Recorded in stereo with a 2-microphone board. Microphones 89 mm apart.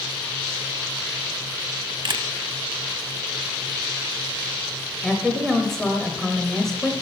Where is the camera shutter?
55° right (ahead or behind), 0.6 m.